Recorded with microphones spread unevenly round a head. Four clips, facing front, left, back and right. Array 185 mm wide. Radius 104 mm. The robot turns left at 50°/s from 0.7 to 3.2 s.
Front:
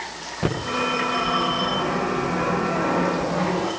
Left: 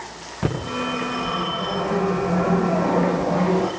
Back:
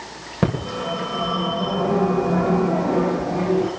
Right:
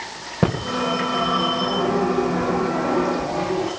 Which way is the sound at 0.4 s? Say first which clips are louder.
Right 4 dB, back 1 dB; 130° right.